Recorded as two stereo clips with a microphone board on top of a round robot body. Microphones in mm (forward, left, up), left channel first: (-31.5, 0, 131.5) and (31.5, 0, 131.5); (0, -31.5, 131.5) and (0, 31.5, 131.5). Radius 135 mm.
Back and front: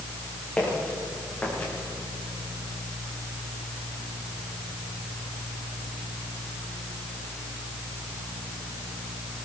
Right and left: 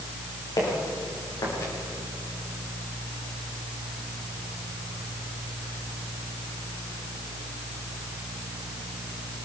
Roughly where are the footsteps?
Right.